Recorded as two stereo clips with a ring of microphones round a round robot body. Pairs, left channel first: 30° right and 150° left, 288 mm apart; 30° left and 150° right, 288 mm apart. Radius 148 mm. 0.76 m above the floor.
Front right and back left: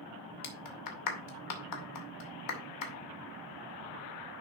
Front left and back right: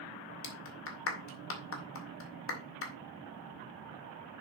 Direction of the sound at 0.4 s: 15° right.